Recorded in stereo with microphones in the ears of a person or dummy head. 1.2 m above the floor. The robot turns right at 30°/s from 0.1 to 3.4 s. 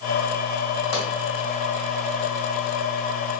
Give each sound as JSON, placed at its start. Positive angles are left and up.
{"t": 0.9, "sound": "a pop", "side_deg": 55, "distance_m": 1.8}